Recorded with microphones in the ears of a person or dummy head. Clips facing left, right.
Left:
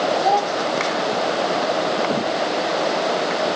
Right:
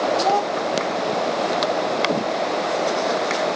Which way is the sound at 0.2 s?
15° right (ahead or behind).